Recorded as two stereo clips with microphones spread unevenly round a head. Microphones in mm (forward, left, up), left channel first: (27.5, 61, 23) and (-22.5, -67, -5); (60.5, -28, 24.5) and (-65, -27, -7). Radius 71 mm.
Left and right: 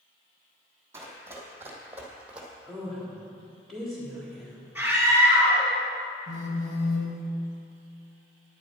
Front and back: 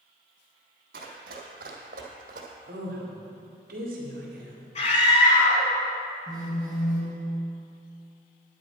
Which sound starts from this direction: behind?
Running footsteps, at 0.9 s.